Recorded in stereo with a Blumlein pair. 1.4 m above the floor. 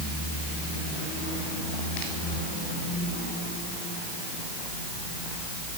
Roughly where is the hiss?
No hiss in this recording.